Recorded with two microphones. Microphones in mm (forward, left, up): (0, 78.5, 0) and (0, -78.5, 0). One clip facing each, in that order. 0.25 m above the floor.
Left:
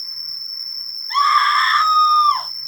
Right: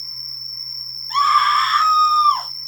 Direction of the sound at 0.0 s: 70° left (ahead or behind).